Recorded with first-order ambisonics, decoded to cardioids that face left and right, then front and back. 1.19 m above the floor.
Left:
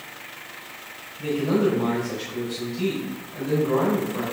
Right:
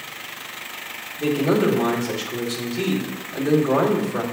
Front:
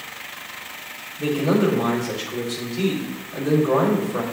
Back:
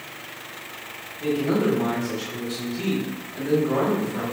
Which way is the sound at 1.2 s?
60° right.